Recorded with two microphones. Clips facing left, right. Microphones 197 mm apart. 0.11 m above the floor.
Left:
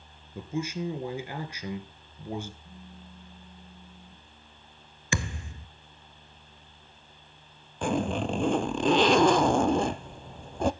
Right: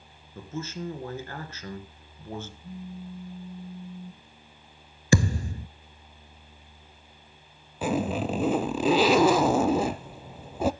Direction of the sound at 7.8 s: 5° right (ahead or behind).